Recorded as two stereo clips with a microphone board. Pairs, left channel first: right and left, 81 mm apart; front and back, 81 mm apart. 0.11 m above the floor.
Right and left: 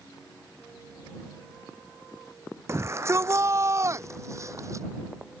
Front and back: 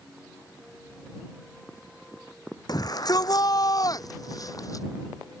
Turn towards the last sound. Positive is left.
turn(degrees=45)